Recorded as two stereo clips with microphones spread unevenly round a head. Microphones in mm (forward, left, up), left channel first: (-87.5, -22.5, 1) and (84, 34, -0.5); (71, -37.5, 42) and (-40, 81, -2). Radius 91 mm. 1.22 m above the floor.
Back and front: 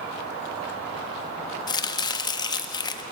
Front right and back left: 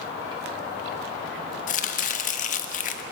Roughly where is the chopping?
Right.